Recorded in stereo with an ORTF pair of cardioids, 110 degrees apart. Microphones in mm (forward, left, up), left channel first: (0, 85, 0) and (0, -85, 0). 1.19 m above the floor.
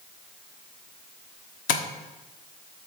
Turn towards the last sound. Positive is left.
turn(degrees=55)